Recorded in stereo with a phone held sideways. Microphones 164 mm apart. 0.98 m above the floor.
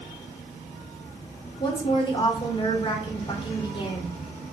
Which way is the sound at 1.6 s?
30° left (ahead or behind).